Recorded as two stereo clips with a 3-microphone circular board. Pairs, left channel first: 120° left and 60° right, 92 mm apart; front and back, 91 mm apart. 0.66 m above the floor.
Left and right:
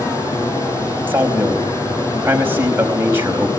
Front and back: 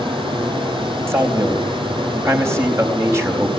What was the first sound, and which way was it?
Running water, 175° left.